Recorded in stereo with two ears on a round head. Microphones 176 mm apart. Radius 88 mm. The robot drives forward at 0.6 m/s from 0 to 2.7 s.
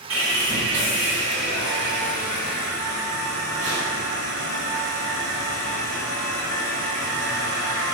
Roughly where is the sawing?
Right.